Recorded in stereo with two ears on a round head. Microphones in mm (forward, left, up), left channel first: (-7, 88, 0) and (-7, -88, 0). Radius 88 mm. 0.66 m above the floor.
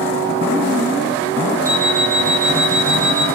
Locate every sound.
1.6 s an alarm clock: 10° right (ahead or behind), 2.5 m